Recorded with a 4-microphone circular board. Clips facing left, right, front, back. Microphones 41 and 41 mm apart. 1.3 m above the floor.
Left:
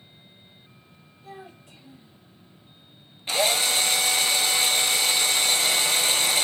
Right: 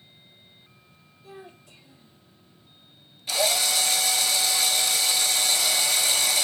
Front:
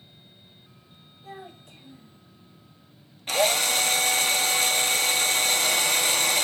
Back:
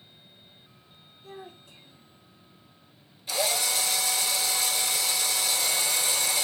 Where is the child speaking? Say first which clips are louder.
Left 2 dB, front 2 dB; 25° left, 2.5 m.